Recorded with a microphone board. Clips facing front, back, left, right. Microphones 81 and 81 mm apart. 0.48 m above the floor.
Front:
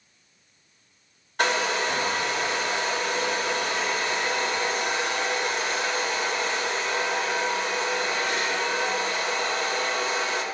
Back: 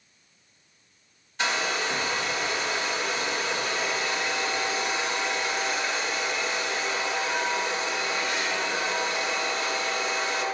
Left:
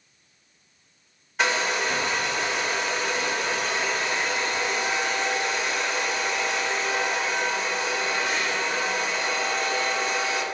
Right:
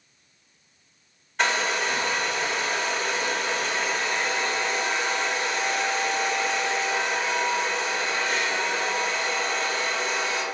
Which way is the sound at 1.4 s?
5° left.